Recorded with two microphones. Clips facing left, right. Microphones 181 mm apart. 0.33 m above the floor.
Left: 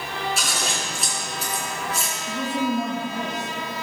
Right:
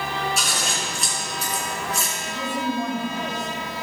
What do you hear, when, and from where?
0.4 s scissors: centre (ahead or behind), 3 m
2.3 s a woman speaking: 15° left (ahead or behind), 3.5 m